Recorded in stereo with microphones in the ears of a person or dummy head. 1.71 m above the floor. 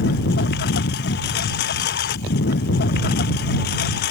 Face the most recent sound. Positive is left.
turn(degrees=60)  # may be behind; listen again after turning